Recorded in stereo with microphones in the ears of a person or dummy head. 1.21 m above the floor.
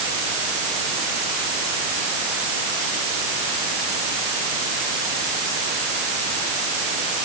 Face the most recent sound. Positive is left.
No sound to turn to.